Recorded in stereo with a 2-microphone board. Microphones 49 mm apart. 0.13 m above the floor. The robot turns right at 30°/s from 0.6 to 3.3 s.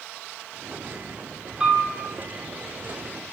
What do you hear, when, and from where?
1.6 s a piano: 15° right (ahead or behind), 1.1 m; by 1.9 s 20° right (ahead or behind), 1.1 m